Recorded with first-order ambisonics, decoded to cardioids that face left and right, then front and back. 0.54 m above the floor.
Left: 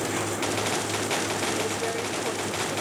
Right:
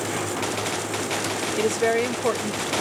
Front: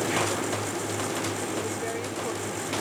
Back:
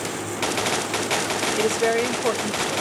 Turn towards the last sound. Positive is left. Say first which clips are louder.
# right 6 dB, back 10 dB
turn(degrees=-140)